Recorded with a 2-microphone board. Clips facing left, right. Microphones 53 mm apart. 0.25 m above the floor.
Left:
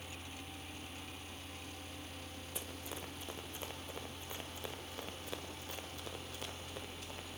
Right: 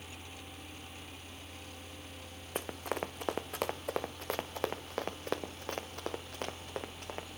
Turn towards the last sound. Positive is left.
turn(degrees=-55)  # may be behind; listen again after turning